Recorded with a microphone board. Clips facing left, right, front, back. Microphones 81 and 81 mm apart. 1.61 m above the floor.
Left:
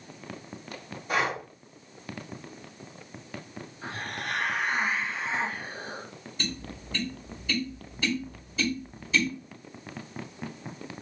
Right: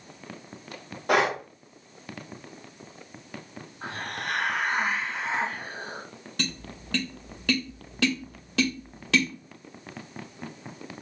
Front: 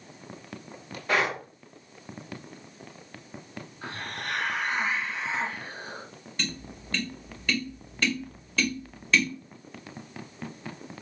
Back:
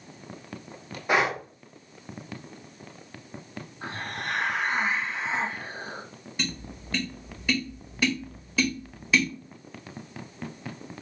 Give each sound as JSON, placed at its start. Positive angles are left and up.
{"t": 1.1, "sound": "breathing", "azimuth_deg": -105, "distance_m": 0.8}
{"t": 3.8, "sound": "a hiss", "azimuth_deg": -120, "distance_m": 1.7}
{"t": 6.4, "sound": "tapping", "azimuth_deg": -100, "distance_m": 1.4}